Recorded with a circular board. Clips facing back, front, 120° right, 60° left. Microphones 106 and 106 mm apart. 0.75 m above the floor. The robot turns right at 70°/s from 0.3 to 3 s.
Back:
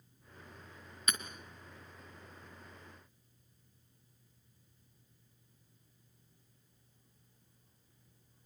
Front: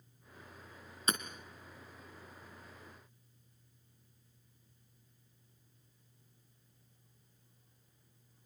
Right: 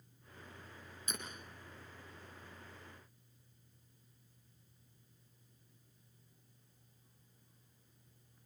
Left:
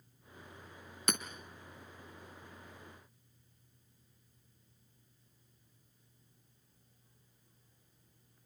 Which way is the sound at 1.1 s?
55° left.